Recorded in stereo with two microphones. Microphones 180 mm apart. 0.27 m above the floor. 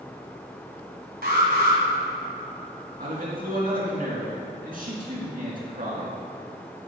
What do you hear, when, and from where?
1.2 s an alarm: 60° right (ahead or behind), 3 m
3.0 s a man speaking: 50° right (ahead or behind), 3.5 m